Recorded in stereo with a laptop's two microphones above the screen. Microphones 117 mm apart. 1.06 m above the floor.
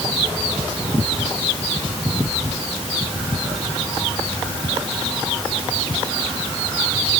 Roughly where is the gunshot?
I don't hear a gunshot.